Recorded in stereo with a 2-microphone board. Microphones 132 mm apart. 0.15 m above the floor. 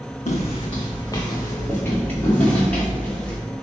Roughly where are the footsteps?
Left.